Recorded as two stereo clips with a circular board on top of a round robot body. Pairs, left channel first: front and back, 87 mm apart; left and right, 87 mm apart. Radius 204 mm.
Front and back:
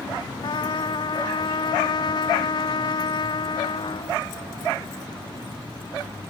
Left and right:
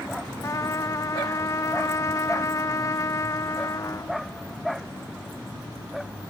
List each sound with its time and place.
0.4 s a trumpet: 35° left